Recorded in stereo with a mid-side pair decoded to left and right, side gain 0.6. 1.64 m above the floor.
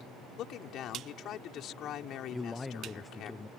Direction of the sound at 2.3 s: 25° left.